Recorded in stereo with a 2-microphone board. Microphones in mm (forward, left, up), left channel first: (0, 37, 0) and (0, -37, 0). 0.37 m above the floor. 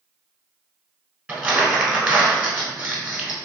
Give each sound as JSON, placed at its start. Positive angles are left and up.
{"t": 1.3, "sound": "crumpling", "side_deg": -20, "distance_m": 1.0}